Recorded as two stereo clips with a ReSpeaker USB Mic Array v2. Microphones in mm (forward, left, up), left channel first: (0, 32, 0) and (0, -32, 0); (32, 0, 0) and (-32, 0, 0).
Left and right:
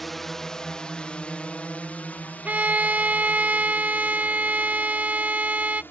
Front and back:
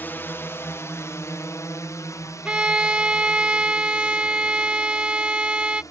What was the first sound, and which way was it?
A drone, 5° left.